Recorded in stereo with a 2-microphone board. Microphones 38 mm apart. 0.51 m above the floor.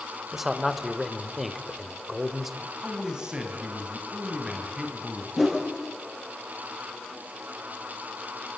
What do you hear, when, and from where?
0.3 s a man speaking: 5° right (ahead or behind), 1.6 m
2.6 s a man speaking: 20° right (ahead or behind), 4 m
5.4 s a whoosh: centre (ahead or behind), 3.5 m